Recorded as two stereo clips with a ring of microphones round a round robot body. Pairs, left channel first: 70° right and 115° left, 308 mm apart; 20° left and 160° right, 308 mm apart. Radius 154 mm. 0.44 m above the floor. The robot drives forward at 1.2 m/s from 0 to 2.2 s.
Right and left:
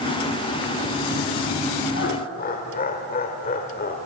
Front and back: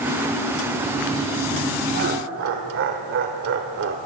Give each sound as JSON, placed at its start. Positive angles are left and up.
{"t": 1.9, "sound": "laughter", "azimuth_deg": -105, "distance_m": 1.2}